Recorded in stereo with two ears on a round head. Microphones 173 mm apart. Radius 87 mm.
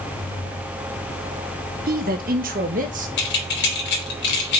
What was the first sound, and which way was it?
A man speaking, 50° right (ahead or behind).